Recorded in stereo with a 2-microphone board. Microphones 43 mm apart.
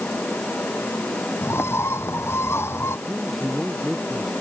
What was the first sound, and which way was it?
A bird, 75° left (ahead or behind).